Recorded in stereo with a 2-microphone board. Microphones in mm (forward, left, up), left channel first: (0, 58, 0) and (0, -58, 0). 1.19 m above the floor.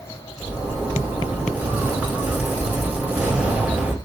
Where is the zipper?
10° right (ahead or behind), 5.5 m.